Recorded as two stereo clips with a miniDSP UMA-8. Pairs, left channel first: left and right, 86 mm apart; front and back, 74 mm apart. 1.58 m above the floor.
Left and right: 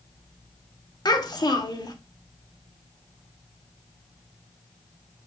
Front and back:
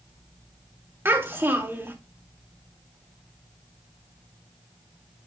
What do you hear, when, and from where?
1.1 s a child speaking: 125° left, 2 m